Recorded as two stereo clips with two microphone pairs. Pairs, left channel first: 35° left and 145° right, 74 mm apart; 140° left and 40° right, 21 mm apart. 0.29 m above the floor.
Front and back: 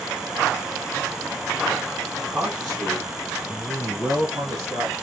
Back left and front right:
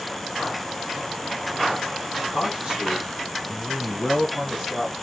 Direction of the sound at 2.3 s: 65° right.